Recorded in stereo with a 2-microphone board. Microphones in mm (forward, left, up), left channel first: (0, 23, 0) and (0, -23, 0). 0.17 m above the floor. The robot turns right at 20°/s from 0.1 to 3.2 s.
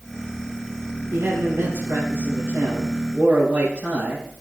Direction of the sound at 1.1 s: 80° right.